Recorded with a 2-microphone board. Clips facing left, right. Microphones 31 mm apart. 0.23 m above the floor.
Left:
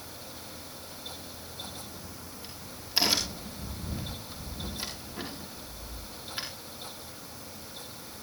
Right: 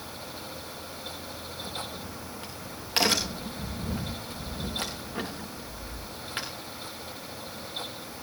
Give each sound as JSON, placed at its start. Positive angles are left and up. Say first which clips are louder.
{"t": 1.6, "sound": "a crack", "louder": "right 6 dB", "side_deg": -65, "distance_m": 6.5}